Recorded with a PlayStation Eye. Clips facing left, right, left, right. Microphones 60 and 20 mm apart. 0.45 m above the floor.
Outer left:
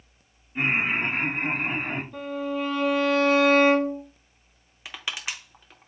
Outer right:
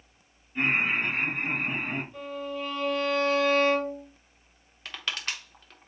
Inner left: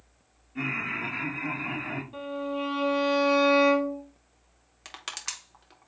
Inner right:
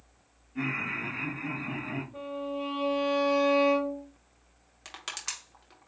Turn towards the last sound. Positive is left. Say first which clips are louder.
# even, inner left 1 dB
turn(degrees=10)  # may be behind; listen again after turning